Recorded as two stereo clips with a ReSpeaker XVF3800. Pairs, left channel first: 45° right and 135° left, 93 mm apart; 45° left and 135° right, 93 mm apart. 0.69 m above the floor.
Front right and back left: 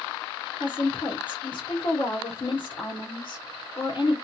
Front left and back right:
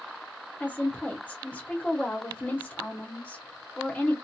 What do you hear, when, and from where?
0.6 s a woman speaking: 25° right, 1.1 m